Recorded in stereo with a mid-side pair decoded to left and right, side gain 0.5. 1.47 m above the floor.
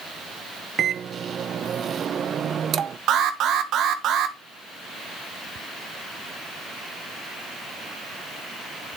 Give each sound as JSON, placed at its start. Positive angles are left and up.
{"t": 0.8, "sound": "a microwave", "azimuth_deg": -50, "distance_m": 0.7}
{"t": 3.1, "sound": "an alarm", "azimuth_deg": -65, "distance_m": 1.6}